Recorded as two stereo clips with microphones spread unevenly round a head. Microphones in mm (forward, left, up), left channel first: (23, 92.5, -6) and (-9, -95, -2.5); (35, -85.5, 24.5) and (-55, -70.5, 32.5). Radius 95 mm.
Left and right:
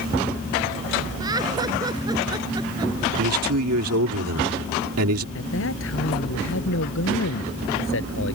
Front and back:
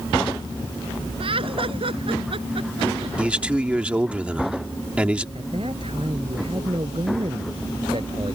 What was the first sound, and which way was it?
Laughter, 170° right.